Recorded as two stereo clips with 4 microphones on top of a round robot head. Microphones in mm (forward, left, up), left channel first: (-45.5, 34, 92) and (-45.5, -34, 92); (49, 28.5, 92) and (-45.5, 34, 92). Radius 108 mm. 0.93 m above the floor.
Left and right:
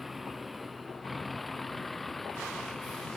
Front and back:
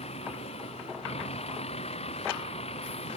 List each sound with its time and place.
0.0 s a vehicle: straight ahead; by 3.2 s 5° left